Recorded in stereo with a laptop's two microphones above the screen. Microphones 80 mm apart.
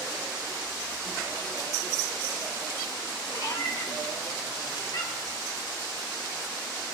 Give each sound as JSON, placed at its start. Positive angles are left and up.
{"t": 3.3, "sound": "a cat meowing", "side_deg": 55, "distance_m": 3.5}